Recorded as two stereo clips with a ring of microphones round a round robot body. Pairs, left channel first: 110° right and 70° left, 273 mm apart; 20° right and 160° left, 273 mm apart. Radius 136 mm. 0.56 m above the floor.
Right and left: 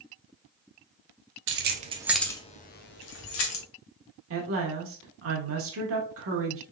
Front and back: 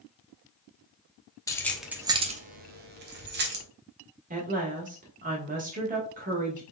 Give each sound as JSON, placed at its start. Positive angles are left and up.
{"t": 1.5, "sound": "keys jangling", "azimuth_deg": 50, "distance_m": 0.7}
{"t": 4.3, "sound": "a woman speaking", "azimuth_deg": 100, "distance_m": 1.3}